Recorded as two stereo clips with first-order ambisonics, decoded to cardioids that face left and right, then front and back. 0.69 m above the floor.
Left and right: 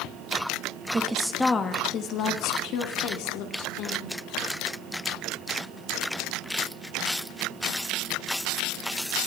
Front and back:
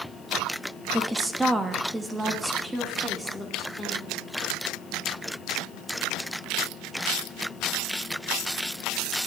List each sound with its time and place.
0.9 s a woman speaking: 105° right, 0.8 m; by 4.2 s 100° left, 2 m